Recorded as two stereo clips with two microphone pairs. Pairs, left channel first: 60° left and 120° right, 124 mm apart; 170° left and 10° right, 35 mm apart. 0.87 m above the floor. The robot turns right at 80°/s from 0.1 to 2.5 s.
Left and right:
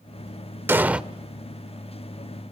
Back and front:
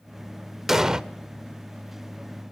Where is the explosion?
75° right, 0.5 m; by 1.0 s 45° right, 0.5 m.